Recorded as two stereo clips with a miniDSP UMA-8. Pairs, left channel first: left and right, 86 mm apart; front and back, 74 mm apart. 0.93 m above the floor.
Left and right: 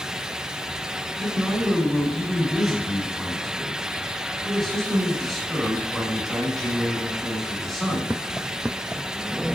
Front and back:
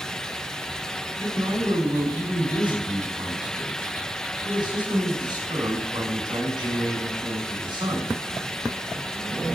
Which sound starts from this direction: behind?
A man speaking, at 1.2 s.